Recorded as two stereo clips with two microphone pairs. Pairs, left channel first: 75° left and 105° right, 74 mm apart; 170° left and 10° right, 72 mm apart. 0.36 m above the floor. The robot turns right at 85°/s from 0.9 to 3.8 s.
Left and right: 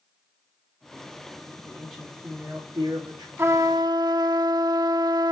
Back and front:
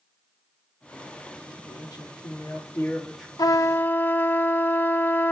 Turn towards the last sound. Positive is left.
turn(degrees=-130)